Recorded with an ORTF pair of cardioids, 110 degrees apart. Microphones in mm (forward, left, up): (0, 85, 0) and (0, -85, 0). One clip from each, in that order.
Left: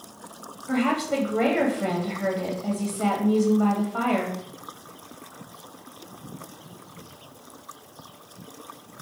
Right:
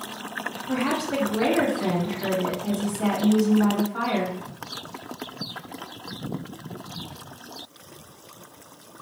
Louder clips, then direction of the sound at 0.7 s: Left 2 dB; 35° left.